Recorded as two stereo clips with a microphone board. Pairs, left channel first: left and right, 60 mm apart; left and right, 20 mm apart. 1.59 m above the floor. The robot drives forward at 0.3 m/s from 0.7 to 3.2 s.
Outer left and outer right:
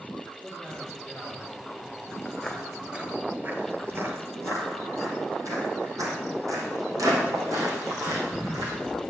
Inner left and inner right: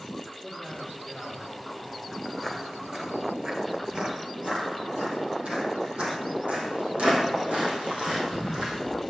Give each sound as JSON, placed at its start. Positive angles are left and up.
{"t": 0.4, "sound": "a man speaking", "side_deg": -55, "distance_m": 4.5}
{"t": 2.2, "sound": "footsteps", "side_deg": 5, "distance_m": 2.0}